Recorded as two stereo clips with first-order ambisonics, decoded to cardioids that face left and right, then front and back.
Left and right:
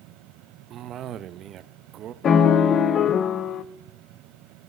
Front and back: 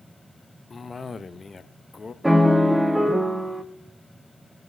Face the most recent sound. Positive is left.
turn(degrees=100)